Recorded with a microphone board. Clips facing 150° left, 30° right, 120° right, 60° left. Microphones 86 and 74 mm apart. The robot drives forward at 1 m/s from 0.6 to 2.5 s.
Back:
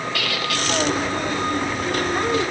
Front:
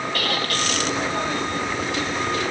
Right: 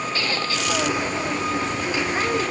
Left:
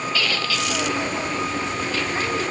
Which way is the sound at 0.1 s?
65° right.